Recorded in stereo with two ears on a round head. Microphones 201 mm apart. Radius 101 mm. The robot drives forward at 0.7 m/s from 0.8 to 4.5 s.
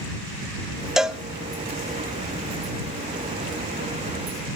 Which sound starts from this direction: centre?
A cowbell, at 1.0 s.